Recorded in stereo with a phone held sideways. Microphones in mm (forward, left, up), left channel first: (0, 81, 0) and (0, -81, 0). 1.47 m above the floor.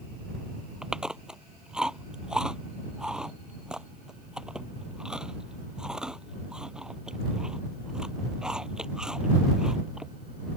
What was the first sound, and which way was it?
Chewing, 5° right (ahead or behind).